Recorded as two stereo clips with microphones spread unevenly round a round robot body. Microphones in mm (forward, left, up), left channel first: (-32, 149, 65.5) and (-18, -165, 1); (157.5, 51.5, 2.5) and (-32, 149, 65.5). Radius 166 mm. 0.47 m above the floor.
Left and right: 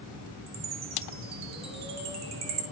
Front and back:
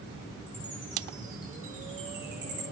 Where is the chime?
120° right, 3 m.